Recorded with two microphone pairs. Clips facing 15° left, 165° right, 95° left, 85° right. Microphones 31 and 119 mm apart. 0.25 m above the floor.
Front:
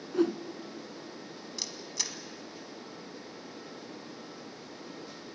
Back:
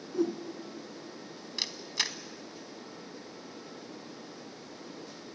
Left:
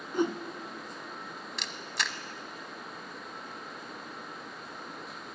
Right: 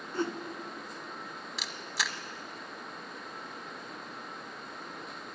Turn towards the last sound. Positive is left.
turn(degrees=-170)